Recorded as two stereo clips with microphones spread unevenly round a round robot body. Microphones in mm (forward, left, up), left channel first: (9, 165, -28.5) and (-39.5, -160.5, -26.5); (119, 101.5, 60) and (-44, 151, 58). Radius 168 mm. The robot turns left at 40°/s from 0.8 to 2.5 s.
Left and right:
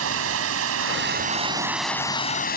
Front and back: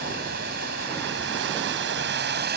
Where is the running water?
145° right; by 2.6 s 145° left.